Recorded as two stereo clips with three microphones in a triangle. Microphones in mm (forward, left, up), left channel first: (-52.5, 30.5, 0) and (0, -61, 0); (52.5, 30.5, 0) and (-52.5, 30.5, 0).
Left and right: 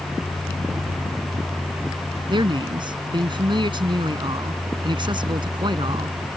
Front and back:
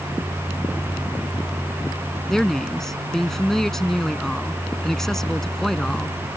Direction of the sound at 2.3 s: 85° right.